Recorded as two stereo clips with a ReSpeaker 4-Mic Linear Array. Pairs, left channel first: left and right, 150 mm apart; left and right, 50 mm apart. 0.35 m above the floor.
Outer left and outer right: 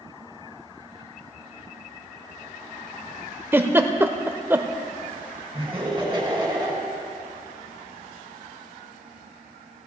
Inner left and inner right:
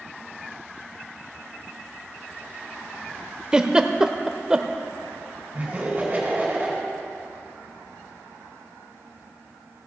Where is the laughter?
25° right (ahead or behind), 3 m.